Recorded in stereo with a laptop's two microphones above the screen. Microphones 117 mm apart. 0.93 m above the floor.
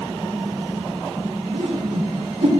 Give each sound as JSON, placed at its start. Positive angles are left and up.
{"t": 1.5, "sound": "a whoosh", "side_deg": -65, "distance_m": 1.2}